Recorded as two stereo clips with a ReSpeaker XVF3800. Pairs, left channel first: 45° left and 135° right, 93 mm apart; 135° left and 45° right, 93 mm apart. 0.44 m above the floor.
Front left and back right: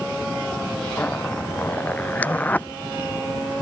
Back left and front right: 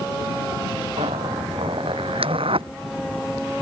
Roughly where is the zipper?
Ahead right.